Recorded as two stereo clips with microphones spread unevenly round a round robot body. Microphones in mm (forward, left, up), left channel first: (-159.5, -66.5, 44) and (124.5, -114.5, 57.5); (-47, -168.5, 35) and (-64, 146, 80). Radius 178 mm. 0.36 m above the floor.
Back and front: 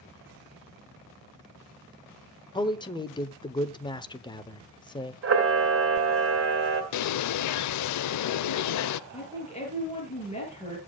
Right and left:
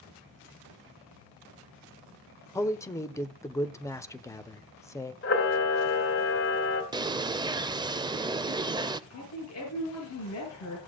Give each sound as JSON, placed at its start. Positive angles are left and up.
{"t": 2.5, "sound": "a man speaking", "azimuth_deg": -140, "distance_m": 1.0}
{"t": 5.2, "sound": "a camera shutter", "azimuth_deg": -45, "distance_m": 3.0}
{"t": 6.9, "sound": "a bird", "azimuth_deg": 175, "distance_m": 0.6}
{"t": 9.1, "sound": "a woman speaking", "azimuth_deg": -120, "distance_m": 7.0}